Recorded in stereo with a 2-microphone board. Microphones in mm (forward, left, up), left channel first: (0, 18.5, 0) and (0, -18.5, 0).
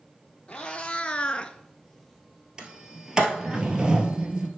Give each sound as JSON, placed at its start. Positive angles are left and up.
{"t": 0.5, "sound": "a cat meowing", "side_deg": 25, "distance_m": 1.0}
{"t": 2.6, "sound": "a sliding door", "side_deg": -20, "distance_m": 1.1}